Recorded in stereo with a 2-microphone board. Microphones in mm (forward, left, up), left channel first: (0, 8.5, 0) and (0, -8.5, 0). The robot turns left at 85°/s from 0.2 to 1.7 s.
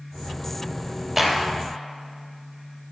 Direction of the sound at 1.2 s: 10° right (ahead or behind).